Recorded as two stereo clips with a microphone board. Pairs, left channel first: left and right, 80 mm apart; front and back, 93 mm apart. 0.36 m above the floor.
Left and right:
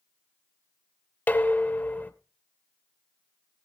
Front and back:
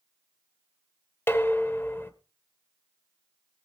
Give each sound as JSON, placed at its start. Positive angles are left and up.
{"t": 1.3, "sound": "dishes clattering", "azimuth_deg": 45, "distance_m": 0.8}